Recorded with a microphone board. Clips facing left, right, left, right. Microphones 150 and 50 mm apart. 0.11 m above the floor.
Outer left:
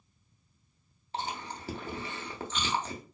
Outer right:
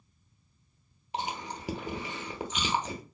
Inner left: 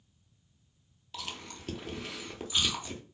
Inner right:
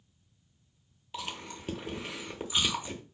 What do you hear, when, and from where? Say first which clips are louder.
1.1 s chewing: outer right 2 dB, inner right 3 dB; 15° right (ahead or behind), 0.8 m